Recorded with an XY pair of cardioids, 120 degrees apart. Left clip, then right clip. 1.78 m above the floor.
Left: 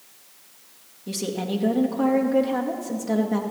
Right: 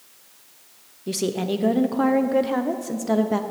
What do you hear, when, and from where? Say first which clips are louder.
1.1 s a woman speaking: right 4 dB; 30° right, 0.9 m